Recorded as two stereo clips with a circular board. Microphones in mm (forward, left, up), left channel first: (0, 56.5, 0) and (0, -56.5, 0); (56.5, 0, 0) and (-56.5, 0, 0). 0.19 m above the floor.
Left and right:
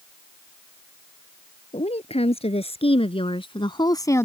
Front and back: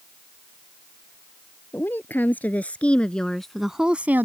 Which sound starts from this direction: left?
A woman speaking, at 1.7 s.